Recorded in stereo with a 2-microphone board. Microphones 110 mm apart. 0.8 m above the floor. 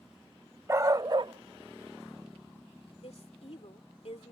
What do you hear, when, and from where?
0.7 s a dog barking: 25° right (ahead or behind); by 2.9 s 40° right (ahead or behind)
3.0 s a woman speaking: 65° left (ahead or behind)